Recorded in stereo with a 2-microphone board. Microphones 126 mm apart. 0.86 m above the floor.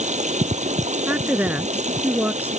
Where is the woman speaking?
15° right (ahead or behind).